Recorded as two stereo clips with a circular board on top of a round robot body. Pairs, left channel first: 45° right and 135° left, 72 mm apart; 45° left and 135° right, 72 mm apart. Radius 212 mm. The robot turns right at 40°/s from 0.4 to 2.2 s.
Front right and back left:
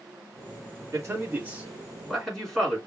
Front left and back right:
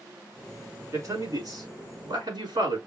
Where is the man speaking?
Straight behind, 3 m; by 2.8 s 125° right, 3 m.